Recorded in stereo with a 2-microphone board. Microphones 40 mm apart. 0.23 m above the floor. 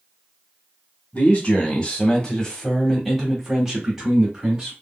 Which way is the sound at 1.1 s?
30° left (ahead or behind).